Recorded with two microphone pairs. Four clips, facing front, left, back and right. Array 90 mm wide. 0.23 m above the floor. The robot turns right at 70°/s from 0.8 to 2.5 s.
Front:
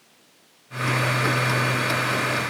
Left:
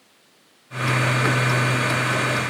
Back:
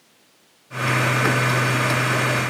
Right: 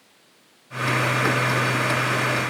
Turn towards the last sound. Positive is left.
No sound to turn to.